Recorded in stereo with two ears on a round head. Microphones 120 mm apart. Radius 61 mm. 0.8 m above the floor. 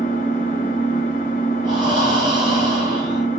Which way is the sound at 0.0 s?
60° left (ahead or behind).